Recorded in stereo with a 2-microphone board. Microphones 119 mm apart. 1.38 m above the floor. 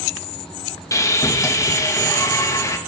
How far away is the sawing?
About 1.9 m.